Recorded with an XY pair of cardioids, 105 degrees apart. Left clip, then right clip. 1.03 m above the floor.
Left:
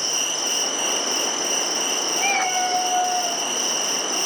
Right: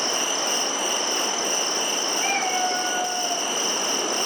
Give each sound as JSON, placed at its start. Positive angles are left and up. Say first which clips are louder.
{"t": 0.0, "sound": "an insect", "louder": "even", "azimuth_deg": 25, "distance_m": 1.9}
{"t": 2.2, "sound": "a cat meowing", "louder": "left 3 dB", "azimuth_deg": 60, "distance_m": 3.0}